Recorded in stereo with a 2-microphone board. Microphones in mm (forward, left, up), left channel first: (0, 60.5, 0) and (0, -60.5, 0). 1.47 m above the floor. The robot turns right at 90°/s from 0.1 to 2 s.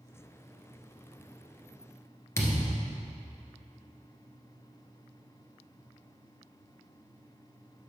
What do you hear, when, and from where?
2.4 s a thud: 20° left (ahead or behind), 1.5 m